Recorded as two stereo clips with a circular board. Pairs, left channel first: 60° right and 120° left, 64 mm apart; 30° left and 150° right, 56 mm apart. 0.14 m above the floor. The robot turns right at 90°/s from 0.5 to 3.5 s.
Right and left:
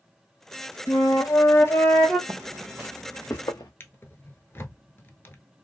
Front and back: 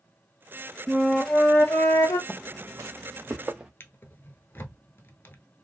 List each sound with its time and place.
0.9 s a flute: 85° right, 0.8 m; by 2.2 s 35° left, 0.8 m
2.3 s footsteps: 115° left, 0.5 m; by 3.7 s 75° right, 1.2 m
3.8 s a drawer: 10° right, 0.6 m